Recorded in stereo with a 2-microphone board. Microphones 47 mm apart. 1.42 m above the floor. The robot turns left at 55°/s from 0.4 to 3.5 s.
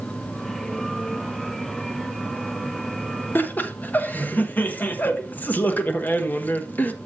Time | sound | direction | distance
3.4 | laughter | 45° left (ahead or behind) | 1.2 m